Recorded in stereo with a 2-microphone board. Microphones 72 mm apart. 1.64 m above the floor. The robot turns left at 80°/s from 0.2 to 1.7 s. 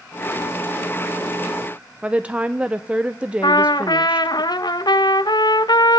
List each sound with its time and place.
2.0 s a woman speaking: 15° right (ahead or behind), 0.7 m
3.4 s a trumpet: 75° left (ahead or behind), 0.7 m